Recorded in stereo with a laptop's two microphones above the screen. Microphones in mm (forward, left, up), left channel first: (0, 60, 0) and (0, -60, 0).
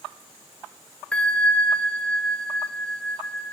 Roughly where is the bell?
Centre.